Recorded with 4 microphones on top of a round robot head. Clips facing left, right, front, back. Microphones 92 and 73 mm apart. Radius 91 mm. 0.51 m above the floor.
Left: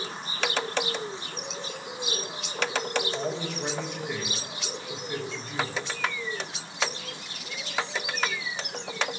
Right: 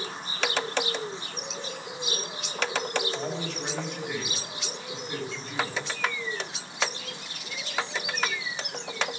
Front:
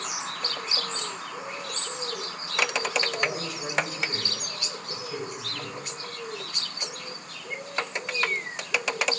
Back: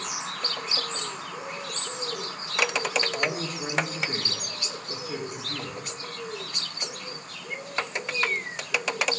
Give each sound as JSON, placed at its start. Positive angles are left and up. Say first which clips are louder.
{"t": 3.1, "sound": "a man speaking", "louder": "left 1 dB, back 1 dB", "azimuth_deg": 175, "distance_m": 1.7}